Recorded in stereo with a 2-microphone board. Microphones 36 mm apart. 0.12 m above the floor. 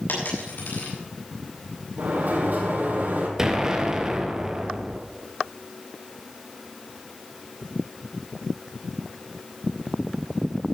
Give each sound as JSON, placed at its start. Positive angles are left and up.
{"t": 0.1, "sound": "a dropped coin", "side_deg": 65, "distance_m": 6.0}
{"t": 2.0, "sound": "a sliding door", "side_deg": -60, "distance_m": 4.0}
{"t": 3.4, "sound": "an explosion", "side_deg": -15, "distance_m": 1.9}